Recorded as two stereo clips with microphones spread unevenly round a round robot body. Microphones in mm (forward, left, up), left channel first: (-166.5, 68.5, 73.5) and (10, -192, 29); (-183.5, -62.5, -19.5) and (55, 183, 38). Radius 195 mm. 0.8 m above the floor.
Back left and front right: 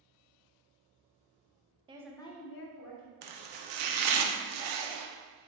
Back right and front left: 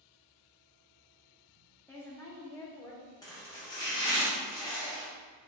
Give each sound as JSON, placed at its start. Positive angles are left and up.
{"t": 1.9, "sound": "a woman speaking", "azimuth_deg": -75, "distance_m": 0.5}
{"t": 3.2, "sound": "chopping", "azimuth_deg": -50, "distance_m": 0.5}